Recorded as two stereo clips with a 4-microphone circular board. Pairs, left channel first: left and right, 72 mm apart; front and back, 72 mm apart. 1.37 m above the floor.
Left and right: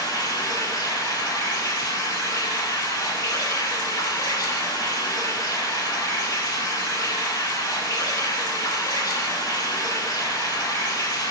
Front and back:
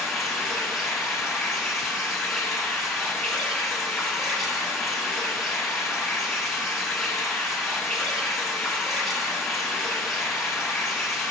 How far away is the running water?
About 1.3 m.